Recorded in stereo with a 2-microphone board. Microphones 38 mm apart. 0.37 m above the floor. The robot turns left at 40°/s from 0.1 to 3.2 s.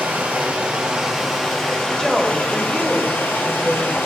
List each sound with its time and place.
0.0 s running water: 125° right, 2.5 m; by 4.1 s 110° left, 2.5 m
2.0 s a woman speaking: 30° left, 1.1 m; by 4.0 s 15° right, 1.1 m